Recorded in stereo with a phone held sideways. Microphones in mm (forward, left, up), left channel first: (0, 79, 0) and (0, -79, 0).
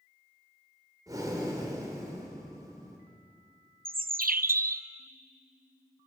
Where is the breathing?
25° right (ahead or behind), 4 m.